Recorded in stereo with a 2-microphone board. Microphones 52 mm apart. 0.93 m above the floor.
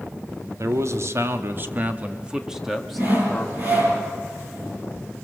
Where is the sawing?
40° right (ahead or behind), 9.5 m.